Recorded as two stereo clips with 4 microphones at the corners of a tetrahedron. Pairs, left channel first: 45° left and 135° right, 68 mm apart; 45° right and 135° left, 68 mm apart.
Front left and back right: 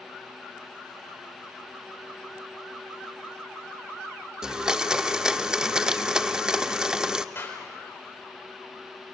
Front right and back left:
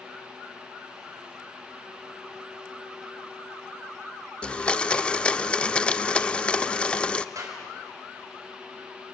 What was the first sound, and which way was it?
A blender, 80° right.